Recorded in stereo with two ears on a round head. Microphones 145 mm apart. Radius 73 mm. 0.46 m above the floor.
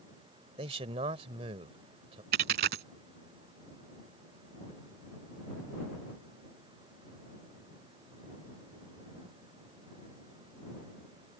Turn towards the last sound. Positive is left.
turn(degrees=-70)  # may be behind; listen again after turning